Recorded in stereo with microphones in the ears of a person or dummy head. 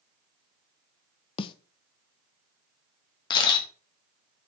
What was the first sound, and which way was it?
A snare drum, 35° left (ahead or behind).